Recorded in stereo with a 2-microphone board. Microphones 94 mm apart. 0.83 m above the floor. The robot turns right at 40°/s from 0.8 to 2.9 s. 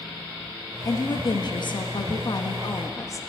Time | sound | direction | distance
0.8 | a woman speaking | 55° left | 0.7 m